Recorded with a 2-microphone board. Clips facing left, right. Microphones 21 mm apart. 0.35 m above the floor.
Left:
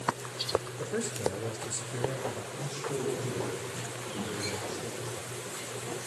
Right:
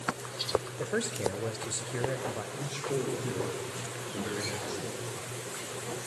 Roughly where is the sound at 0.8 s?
Right.